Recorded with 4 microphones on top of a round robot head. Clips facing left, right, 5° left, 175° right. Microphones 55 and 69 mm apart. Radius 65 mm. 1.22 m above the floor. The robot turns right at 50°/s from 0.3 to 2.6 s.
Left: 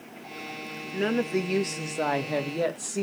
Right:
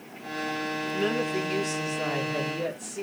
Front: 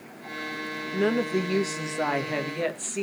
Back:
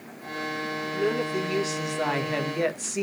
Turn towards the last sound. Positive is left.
turn(degrees=105)